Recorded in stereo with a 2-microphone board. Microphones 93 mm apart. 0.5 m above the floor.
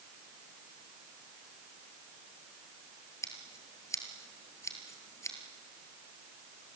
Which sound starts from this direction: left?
Scissors, at 3.2 s.